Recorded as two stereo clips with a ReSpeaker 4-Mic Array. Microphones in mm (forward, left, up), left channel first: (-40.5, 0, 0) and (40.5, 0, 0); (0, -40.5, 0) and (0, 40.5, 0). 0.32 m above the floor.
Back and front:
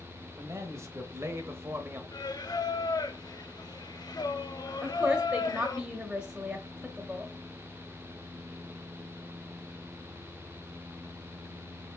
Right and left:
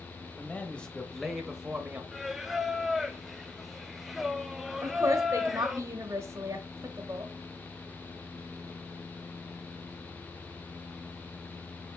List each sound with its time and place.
0.4 s a man speaking: 30° right, 1.3 m; by 2.0 s 40° left, 1.1 m
2.1 s singing: 175° left, 0.6 m
4.8 s a woman speaking: 75° left, 1.1 m